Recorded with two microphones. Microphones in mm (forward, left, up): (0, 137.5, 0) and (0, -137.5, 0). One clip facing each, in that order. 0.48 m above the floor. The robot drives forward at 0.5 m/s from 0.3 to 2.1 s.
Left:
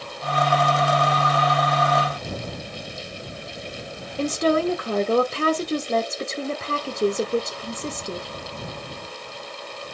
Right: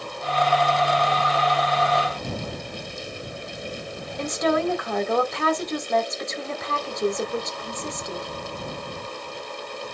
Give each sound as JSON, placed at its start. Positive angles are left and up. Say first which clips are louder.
{"t": 4.2, "sound": "a woman speaking", "louder": "left 3 dB", "side_deg": 35, "distance_m": 1.0}